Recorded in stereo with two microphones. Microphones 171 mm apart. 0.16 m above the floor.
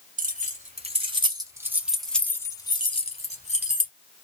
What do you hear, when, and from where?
0.2 s keys jangling: 50° right (ahead or behind), 1.4 m; by 3.9 s 50° left (ahead or behind), 1.4 m